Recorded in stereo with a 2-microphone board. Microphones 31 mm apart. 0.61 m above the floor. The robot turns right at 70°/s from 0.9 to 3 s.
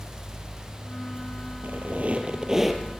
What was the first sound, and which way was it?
A squeak, 85° right.